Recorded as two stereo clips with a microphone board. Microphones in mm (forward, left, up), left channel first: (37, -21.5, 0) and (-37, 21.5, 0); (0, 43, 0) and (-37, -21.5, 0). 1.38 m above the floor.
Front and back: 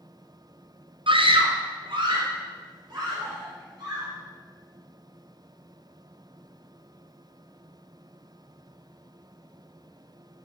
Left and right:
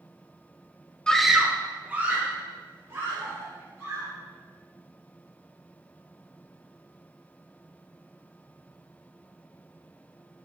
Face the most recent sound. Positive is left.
turn(degrees=-175)